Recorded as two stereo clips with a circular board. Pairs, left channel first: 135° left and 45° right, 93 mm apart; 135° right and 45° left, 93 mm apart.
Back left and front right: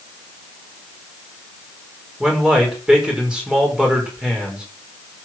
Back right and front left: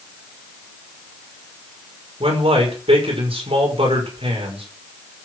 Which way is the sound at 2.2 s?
35° left.